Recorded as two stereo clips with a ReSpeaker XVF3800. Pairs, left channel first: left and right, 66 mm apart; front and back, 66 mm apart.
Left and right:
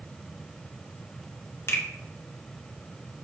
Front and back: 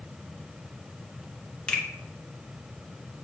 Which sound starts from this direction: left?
A finger snap, at 1.7 s.